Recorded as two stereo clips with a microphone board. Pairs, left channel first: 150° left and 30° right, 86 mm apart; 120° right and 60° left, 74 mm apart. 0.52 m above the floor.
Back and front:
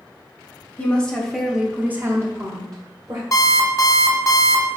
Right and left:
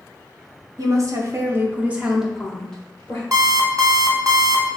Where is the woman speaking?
80° left, 0.9 m; by 3.2 s 55° right, 1.0 m.